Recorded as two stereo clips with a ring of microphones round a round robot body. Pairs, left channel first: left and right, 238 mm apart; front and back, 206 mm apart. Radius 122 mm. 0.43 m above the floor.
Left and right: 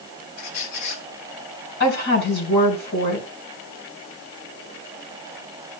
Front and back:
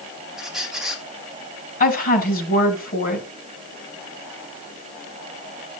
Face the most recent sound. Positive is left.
turn(degrees=45)